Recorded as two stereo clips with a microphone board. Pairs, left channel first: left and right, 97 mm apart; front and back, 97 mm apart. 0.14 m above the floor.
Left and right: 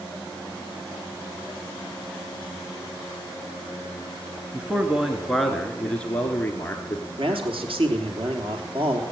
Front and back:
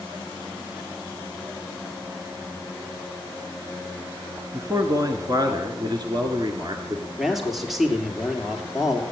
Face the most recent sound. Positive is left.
turn(degrees=-90)